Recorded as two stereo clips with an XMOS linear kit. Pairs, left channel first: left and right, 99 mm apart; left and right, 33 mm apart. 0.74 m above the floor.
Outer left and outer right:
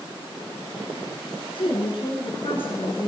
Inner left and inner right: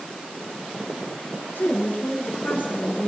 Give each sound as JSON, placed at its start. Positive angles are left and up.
{"t": 1.6, "sound": "a woman speaking", "side_deg": 60, "distance_m": 8.0}